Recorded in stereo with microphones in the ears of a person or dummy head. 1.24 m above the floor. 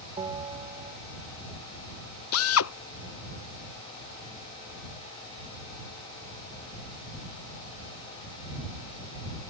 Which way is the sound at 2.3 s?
65° left (ahead or behind).